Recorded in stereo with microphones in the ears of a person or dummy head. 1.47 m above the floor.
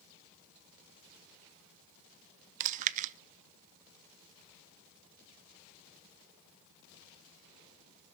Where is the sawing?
No sawing in this recording.